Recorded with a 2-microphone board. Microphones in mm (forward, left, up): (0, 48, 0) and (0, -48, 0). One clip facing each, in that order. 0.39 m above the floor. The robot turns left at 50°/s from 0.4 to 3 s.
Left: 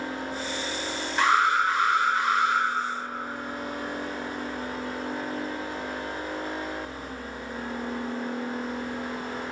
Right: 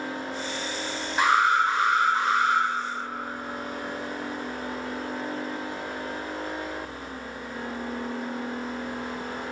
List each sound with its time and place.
1.2 s an alarm: 20° right, 1.5 m; by 2.6 s 90° right, 1.5 m